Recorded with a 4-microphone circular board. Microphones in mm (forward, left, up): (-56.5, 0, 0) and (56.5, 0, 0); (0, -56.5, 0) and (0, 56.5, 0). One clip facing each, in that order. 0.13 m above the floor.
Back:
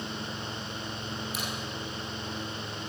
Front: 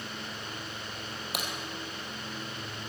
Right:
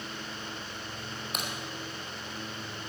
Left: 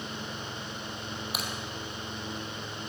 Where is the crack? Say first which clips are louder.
Even, right 1 dB; 5° left, 3 m.